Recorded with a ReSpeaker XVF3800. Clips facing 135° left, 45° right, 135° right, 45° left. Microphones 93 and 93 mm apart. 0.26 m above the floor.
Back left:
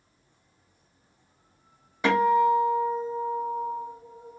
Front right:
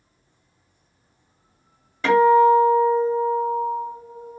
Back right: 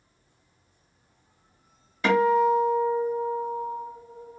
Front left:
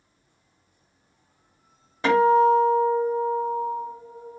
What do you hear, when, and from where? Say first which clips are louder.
2.0 s a guitar: front right 7 dB, front left 3 dB; 75° left, 1.7 m